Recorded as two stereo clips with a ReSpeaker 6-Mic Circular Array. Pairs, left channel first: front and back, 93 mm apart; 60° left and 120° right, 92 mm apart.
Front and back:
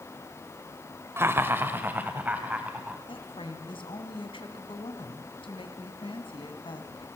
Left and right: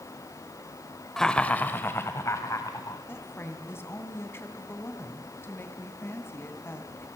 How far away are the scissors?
No scissors in this recording.